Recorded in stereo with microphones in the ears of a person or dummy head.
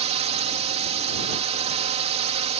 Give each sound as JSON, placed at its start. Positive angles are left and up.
{"t": 0.0, "sound": "a drone", "side_deg": -40}